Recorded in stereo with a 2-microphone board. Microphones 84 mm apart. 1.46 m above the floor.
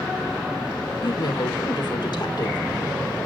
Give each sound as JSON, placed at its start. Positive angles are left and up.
{"t": 1.0, "sound": "a woman speaking", "side_deg": 60, "distance_m": 2.5}